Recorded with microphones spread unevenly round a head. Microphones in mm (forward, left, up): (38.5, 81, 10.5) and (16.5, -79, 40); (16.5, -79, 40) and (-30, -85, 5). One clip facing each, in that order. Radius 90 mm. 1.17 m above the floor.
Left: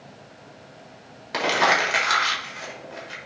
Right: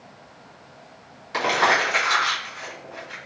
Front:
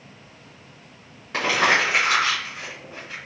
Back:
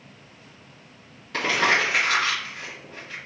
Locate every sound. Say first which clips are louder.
1.3 s crumpling: even, front 2 dB; 95° left, 1.6 m